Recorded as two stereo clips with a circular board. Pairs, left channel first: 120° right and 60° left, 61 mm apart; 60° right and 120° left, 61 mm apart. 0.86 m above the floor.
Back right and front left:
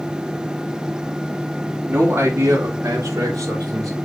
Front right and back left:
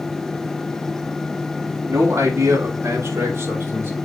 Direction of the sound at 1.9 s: 100° left.